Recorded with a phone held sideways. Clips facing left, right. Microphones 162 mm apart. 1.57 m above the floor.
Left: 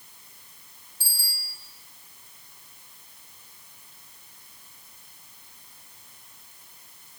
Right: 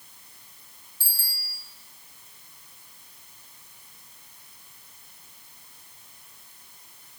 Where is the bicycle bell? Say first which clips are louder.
Left 2 dB; 10° left (ahead or behind), 5 m.